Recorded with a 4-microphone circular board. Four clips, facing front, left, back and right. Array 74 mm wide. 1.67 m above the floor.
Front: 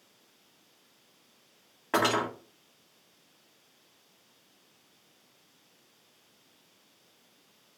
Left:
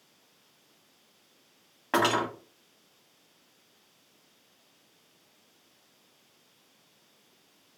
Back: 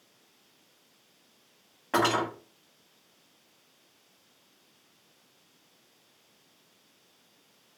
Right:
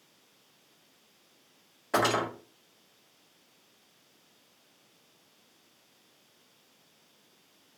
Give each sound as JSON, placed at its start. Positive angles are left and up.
{"t": 1.9, "sound": "cutlery clinking", "azimuth_deg": 90, "distance_m": 1.3}